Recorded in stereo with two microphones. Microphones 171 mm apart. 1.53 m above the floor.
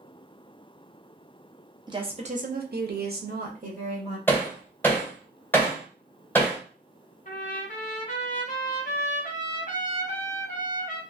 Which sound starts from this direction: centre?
Hammering, at 4.3 s.